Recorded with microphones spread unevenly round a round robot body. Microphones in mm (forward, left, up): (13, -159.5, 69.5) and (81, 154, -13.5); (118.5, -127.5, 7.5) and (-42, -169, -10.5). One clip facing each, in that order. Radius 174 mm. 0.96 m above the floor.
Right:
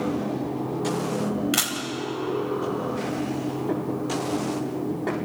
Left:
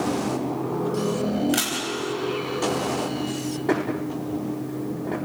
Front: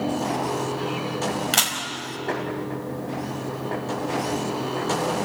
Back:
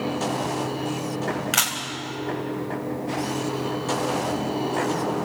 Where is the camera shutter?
40° right, 4.5 m.